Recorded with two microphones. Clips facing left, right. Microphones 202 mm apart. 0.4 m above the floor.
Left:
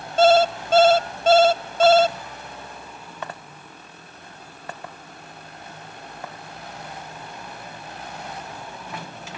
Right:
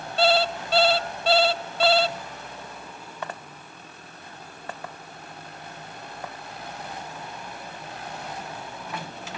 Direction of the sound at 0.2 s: 45° left (ahead or behind).